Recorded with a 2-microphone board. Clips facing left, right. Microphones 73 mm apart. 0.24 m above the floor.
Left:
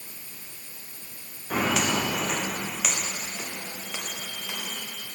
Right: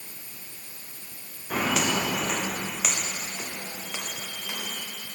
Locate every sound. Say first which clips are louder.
1.5 s footsteps: left 1 dB; 5° left (ahead or behind), 3 m; by 4.8 s 15° right (ahead or behind), 7 m